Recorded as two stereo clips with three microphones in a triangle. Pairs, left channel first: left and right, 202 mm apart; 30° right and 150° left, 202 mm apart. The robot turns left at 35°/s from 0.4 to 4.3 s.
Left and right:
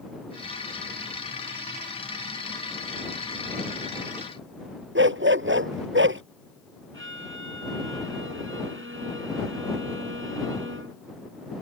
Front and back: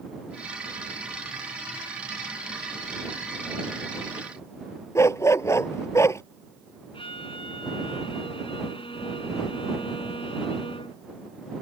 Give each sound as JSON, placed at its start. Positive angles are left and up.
{"t": 5.0, "sound": "a dog barking", "azimuth_deg": -105}
{"t": 6.9, "sound": "a violin", "azimuth_deg": -95}